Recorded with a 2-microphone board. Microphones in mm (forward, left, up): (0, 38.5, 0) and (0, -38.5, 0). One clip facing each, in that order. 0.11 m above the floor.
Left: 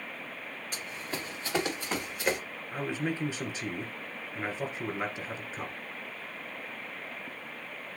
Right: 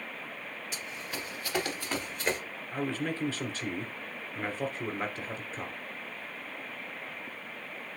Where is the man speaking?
15° left (ahead or behind), 1.7 m.